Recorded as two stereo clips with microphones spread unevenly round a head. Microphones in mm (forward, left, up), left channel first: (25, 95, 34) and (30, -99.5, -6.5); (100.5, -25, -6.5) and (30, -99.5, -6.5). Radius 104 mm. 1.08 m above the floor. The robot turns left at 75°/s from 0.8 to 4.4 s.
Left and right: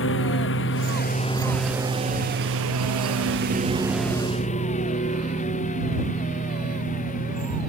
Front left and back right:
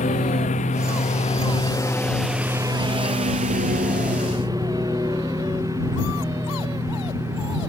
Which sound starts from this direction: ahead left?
A lawn mower, at 0.0 s.